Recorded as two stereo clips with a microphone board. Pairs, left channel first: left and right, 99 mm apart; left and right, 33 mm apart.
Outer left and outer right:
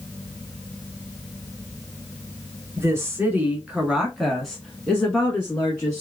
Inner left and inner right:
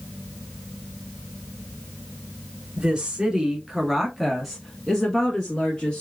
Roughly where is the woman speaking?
Right.